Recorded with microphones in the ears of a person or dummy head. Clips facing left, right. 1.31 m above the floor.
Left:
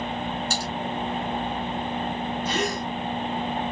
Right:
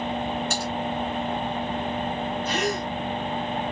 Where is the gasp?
20° left (ahead or behind), 3 m.